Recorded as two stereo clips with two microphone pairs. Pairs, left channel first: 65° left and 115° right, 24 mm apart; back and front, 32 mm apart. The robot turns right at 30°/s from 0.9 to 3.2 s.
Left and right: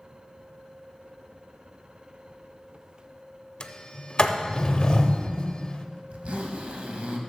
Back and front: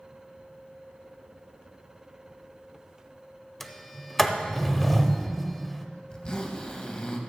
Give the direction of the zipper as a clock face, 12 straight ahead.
4 o'clock.